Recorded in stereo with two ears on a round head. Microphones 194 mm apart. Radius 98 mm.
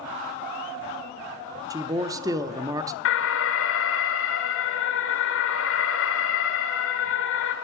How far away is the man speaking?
About 0.6 m.